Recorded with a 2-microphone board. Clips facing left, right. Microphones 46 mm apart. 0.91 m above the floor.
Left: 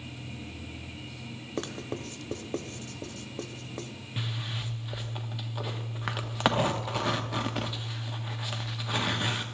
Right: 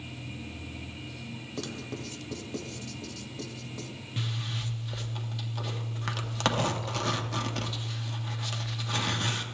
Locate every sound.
1.6 s writing: 40° left (ahead or behind), 0.7 m
4.2 s a zipper: 15° left (ahead or behind), 0.7 m